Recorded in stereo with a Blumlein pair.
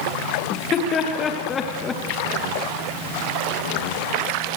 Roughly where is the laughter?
Ahead left.